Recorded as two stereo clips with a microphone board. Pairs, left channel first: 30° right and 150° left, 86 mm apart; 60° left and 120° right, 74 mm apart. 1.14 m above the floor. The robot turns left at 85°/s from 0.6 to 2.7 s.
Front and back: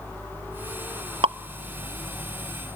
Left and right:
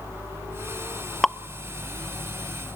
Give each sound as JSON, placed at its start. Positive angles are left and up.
{"t": 1.2, "sound": "dripping", "azimuth_deg": 150, "distance_m": 0.5}